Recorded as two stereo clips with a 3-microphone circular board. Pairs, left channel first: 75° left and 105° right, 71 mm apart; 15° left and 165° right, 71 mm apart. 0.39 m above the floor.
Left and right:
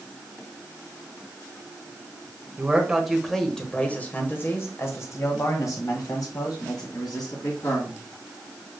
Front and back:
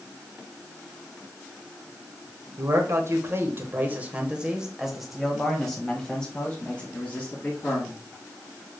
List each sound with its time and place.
2.6 s a man speaking: 175° right, 1.2 m; by 8.0 s 80° left, 2.5 m